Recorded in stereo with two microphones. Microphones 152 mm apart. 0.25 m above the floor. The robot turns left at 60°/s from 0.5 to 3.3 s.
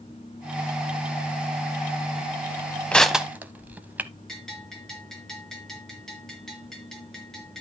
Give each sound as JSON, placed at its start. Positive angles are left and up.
{"t": 2.9, "sound": "crushing", "side_deg": 10, "distance_m": 0.7}
{"t": 4.3, "sound": "a bell", "side_deg": 5, "distance_m": 3.5}